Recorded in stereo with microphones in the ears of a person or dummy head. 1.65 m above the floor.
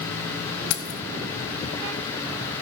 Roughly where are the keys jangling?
Left.